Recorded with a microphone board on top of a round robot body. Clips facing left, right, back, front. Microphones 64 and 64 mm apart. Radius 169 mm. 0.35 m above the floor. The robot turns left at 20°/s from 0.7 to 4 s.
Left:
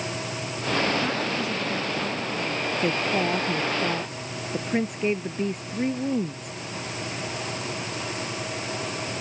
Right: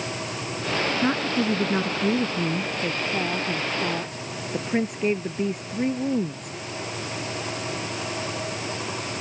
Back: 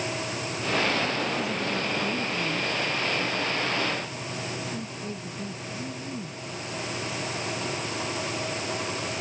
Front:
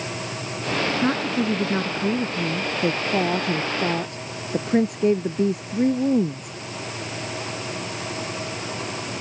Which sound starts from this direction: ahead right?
A woman speaking, at 1.0 s.